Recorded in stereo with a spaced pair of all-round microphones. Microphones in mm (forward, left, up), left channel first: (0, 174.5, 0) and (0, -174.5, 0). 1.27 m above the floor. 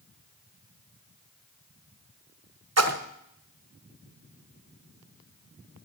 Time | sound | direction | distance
2.8 | a splash | 45° right (ahead or behind) | 0.6 m